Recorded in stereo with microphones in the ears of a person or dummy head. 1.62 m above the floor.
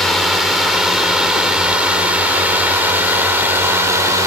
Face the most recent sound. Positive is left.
turn(degrees=-10)  # may be behind; listen again after turning